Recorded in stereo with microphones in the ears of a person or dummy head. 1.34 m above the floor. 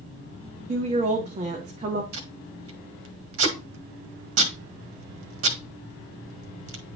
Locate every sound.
0.7 s a woman speaking: 25° right (ahead or behind), 1.5 m
2.1 s tape being pulled: 70° right (ahead or behind), 1.7 m